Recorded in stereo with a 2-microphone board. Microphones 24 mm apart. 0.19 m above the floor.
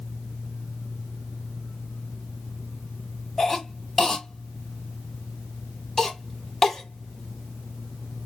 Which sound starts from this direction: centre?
A cough, at 3.4 s.